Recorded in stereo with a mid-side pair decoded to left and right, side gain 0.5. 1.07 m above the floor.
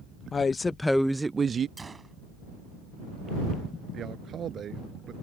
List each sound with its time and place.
0.3 s a woman speaking: 35° left; by 1.7 s 45° right
1.8 s a gunshot: 25° right
3.9 s a man speaking: 50° right